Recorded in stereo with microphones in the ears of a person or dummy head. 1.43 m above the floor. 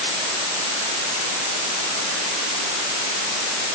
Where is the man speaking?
No man speaking in this recording.